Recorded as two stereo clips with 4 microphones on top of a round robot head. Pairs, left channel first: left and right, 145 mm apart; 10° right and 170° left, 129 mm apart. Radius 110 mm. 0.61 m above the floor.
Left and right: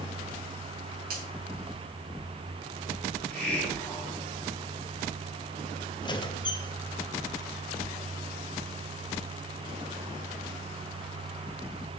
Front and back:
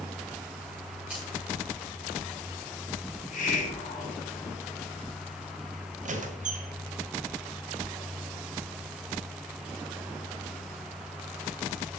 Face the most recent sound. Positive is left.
turn(degrees=150)